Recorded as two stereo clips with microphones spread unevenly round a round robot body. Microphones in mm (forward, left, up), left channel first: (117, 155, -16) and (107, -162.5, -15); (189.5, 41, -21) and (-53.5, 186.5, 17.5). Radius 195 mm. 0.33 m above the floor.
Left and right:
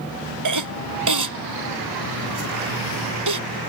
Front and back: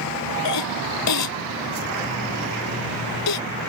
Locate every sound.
0.5 s a cough: 70° right